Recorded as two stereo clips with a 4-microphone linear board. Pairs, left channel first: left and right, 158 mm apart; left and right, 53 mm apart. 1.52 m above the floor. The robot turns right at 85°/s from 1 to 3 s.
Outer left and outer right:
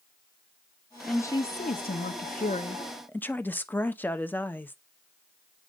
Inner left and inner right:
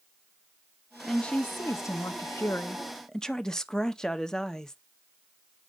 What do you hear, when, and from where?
1.1 s a woman speaking: 5° left, 0.8 m; by 4.8 s 170° left, 0.8 m